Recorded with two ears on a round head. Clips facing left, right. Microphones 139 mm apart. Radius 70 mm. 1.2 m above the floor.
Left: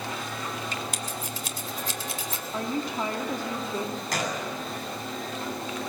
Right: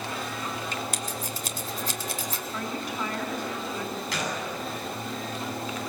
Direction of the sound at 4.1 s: 40° left (ahead or behind).